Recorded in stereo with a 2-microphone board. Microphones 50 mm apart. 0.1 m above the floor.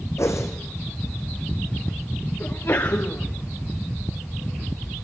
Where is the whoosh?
75° left (ahead or behind), 4.5 m.